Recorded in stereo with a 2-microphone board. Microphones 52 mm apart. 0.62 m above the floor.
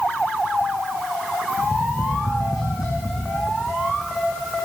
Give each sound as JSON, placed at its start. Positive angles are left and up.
{"t": 1.6, "sound": "tapping", "side_deg": 75, "distance_m": 6.5}